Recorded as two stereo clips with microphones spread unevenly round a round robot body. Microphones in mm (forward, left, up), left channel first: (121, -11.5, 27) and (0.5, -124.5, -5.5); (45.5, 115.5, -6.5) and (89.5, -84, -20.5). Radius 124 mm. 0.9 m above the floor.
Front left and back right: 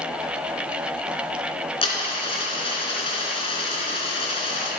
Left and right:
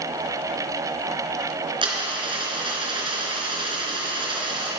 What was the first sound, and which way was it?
A dropped coin, 10° right.